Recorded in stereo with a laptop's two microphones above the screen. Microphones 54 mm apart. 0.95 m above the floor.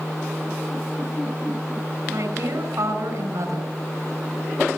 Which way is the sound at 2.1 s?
70° right (ahead or behind).